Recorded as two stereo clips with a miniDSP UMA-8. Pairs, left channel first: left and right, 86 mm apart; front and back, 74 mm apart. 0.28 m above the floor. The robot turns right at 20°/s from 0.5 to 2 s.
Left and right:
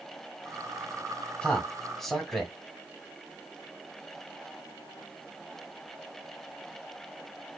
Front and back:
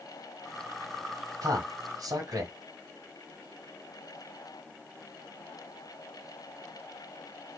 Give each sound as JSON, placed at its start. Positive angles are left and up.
{"t": 1.4, "sound": "a man speaking", "azimuth_deg": 165, "distance_m": 1.8}